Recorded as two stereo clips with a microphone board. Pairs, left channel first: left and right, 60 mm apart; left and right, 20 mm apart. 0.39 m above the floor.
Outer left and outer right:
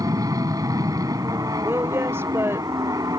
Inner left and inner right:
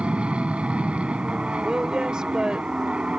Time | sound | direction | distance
0.0 | an aircraft | 65° right (ahead or behind) | ?
1.6 | a woman speaking | 40° right (ahead or behind) | ?